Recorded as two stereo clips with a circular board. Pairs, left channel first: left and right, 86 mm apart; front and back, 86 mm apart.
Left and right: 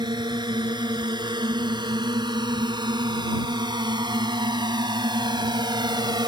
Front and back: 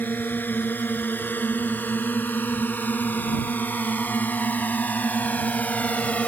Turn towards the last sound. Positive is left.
turn(degrees=-70)